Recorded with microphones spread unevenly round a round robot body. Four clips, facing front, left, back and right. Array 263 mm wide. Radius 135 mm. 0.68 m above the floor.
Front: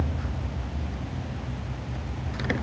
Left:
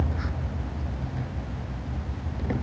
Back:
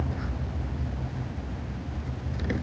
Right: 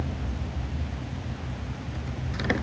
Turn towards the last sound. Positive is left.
No sound to turn to.